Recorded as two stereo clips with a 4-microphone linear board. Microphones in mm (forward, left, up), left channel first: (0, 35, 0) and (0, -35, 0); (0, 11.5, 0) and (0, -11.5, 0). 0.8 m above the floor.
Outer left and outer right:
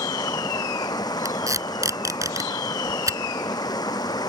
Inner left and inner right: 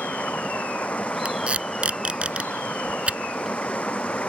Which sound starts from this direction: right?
Tape being pulled, at 1.2 s.